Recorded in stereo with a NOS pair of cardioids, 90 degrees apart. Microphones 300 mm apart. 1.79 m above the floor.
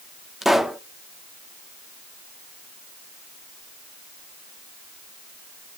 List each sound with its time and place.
0.4 s a pop: straight ahead, 0.6 m